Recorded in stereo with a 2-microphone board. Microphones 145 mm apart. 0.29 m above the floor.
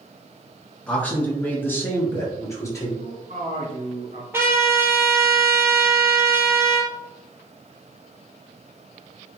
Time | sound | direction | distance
0.9 | a man speaking | 10° left (ahead or behind) | 4 m
3.0 | a man speaking | 65° right (ahead or behind) | 3 m
4.3 | a trumpet | 15° right (ahead or behind) | 1.7 m